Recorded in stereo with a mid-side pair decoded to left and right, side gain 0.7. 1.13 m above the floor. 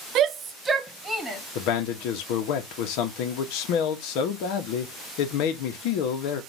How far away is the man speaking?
About 1.2 m.